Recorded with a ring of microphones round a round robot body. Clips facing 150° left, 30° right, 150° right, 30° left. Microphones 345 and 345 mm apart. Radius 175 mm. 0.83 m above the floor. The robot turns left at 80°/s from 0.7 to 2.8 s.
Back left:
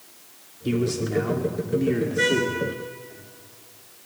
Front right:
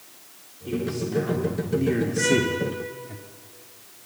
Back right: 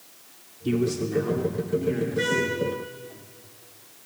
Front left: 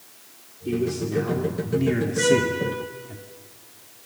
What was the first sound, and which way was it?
A man speaking, 160° left.